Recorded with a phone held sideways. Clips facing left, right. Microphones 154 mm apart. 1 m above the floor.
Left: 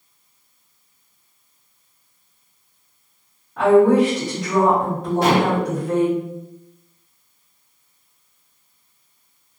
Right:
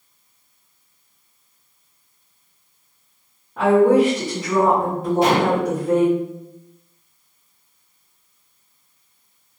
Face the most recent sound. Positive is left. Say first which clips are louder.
# even
turn(degrees=-20)  # may be behind; listen again after turning